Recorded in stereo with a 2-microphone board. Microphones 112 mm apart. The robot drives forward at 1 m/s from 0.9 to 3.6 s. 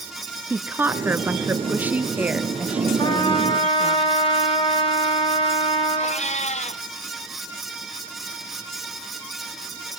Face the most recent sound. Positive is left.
turn(degrees=70)  # may be behind; listen again after turning